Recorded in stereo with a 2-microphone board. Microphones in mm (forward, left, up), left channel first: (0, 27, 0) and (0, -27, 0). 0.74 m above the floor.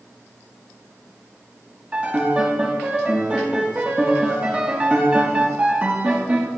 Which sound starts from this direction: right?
A piano, at 1.9 s.